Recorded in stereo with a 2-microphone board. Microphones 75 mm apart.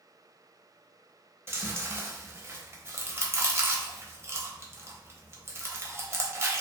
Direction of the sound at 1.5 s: 30° right (ahead or behind).